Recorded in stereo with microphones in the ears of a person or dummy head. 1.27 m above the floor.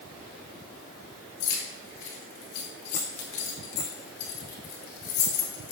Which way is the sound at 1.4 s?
60° left (ahead or behind).